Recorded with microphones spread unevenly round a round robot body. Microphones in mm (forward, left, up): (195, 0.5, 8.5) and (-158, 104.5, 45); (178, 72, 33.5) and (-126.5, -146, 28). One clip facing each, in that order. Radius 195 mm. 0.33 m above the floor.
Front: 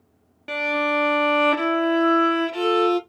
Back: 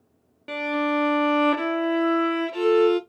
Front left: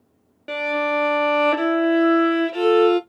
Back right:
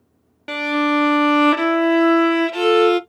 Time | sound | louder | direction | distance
0.5 | a violin | back 1 dB, back right 5 dB | 90° right | 0.7 m